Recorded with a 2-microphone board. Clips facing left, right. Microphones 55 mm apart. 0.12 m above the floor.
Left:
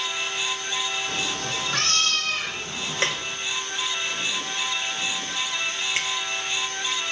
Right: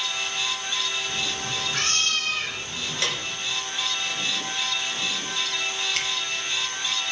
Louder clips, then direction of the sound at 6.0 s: Left 3 dB; 20° left (ahead or behind).